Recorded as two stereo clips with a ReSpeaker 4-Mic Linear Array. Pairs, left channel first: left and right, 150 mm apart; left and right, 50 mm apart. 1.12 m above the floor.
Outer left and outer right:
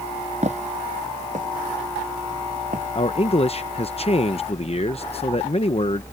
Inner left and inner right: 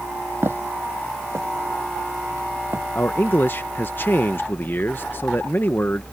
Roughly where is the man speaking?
Left.